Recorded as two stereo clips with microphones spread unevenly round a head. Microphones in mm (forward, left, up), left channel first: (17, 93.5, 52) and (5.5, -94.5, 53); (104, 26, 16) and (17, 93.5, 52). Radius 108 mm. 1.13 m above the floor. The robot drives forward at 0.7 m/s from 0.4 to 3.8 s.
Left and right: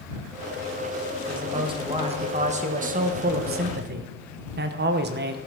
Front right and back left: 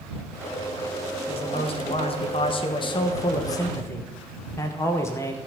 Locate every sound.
1.3 s a man speaking: 25° right, 2 m; by 5.4 s 90° right, 1.1 m